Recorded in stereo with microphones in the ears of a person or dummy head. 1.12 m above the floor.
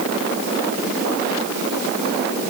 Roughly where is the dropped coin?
I don't hear a dropped coin.